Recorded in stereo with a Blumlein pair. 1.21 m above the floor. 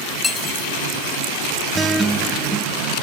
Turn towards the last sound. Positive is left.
turn(degrees=-10)